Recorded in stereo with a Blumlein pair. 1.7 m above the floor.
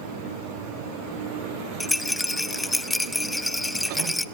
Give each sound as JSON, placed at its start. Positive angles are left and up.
{"t": 1.8, "sound": "a rattle", "azimuth_deg": 5, "distance_m": 0.7}